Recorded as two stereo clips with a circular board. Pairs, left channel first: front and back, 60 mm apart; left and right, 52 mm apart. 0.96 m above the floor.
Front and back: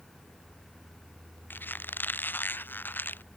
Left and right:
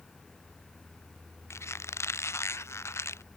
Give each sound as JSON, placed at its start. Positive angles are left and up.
{"t": 1.5, "sound": "a squeak", "azimuth_deg": 60}